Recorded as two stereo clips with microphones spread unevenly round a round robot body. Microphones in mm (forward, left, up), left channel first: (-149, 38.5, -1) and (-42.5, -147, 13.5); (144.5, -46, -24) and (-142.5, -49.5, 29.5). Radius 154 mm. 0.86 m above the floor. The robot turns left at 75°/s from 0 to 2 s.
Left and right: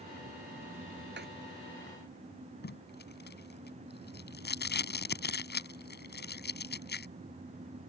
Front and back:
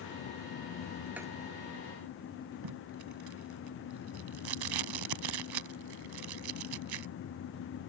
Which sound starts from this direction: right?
Writing, at 1.2 s.